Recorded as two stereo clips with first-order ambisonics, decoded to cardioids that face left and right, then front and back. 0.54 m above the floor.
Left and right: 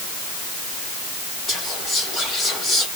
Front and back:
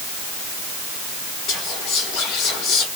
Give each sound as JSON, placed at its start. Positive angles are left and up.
{"t": 1.5, "sound": "whispering", "azimuth_deg": 20, "distance_m": 3.0}